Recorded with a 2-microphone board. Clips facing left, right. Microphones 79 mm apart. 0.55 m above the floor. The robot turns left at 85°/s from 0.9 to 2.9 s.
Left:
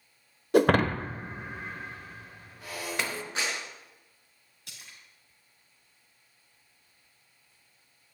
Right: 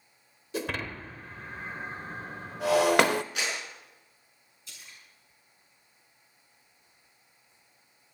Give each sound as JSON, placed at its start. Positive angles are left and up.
{"t": 0.5, "sound": "breaking glass", "side_deg": 60, "distance_m": 0.5}
{"t": 3.4, "sound": "a clap", "side_deg": 35, "distance_m": 5.5}
{"t": 4.7, "sound": "a splash", "side_deg": 65, "distance_m": 4.5}